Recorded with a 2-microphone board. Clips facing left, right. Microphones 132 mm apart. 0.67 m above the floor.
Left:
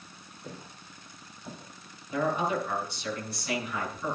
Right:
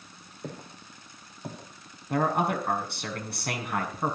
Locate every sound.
0.4 s footsteps: 60° right (ahead or behind), 7 m
2.1 s a man speaking: 65° right (ahead or behind), 6 m